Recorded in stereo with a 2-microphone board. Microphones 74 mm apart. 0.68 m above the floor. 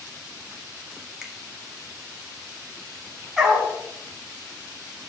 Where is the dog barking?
5° right (ahead or behind), 1.7 m.